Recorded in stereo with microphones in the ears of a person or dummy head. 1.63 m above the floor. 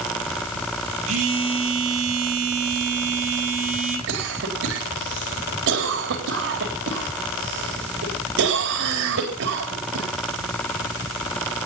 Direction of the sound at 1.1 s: 35° right (ahead or behind).